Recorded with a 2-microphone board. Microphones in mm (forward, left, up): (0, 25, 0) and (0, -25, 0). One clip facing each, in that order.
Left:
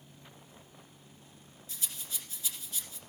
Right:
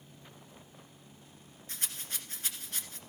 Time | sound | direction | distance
1.7 | a rattle | 55° right (ahead or behind) | 1.5 m